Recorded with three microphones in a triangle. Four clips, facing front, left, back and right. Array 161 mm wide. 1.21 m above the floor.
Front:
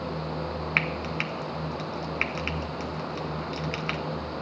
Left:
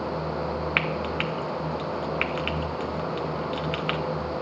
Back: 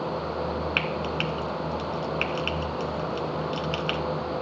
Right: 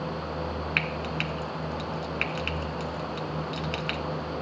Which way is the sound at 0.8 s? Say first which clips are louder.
Left 4 dB, back 2 dB; 75° left.